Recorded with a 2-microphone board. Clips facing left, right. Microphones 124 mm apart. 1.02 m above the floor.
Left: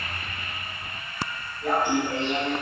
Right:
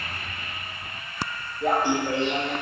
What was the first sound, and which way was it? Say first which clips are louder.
Laughter: right 1 dB; 75° right (ahead or behind).